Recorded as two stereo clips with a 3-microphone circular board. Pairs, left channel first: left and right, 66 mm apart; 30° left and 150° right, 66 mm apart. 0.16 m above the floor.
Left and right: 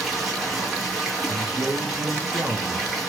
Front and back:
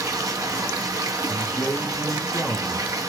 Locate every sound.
0.0 s running water: straight behind, 4.5 m
1.3 s a man speaking: 50° right, 1.7 m